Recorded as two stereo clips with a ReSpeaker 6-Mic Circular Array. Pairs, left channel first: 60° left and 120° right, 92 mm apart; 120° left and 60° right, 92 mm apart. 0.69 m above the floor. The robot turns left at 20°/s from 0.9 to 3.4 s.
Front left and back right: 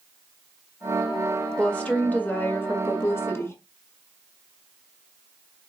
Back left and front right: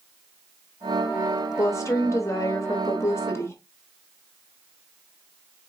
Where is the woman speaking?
130° left, 0.9 m; by 3.6 s 95° left, 0.9 m.